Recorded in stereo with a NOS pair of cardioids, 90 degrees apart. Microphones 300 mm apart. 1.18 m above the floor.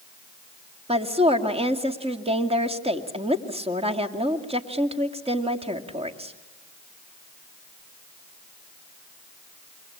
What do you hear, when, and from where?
0.9 s a woman speaking: 20° right, 2.5 m